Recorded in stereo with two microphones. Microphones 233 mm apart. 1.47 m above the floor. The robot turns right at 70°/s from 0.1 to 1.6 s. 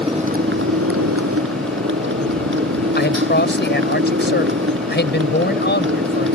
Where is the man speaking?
50° left (ahead or behind).